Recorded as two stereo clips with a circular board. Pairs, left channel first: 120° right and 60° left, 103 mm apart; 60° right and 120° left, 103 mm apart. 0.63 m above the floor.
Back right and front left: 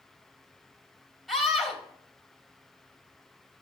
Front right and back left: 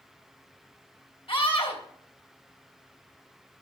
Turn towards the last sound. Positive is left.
turn(degrees=-30)